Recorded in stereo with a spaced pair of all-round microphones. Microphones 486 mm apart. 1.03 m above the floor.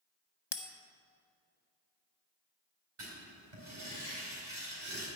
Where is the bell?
60° left (ahead or behind), 0.9 m.